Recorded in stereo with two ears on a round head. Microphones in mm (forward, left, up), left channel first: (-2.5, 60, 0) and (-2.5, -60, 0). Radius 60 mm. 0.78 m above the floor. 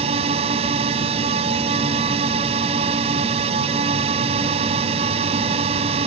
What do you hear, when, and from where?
0.0 s a drone: 45° right (ahead or behind)